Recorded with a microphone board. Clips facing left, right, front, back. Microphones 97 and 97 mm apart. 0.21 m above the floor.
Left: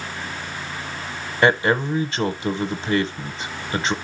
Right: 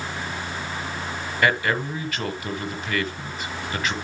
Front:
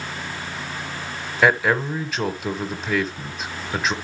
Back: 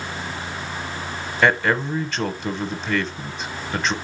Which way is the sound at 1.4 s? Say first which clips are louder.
Left 5 dB, front 1 dB; 80° left.